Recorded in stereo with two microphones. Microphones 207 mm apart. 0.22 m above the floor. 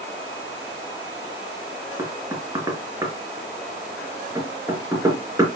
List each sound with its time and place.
2.0 s knocking: 15° right (ahead or behind), 3 m